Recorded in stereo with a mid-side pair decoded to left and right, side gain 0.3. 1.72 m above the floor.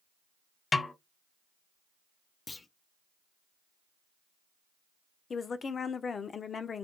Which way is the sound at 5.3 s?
60° left.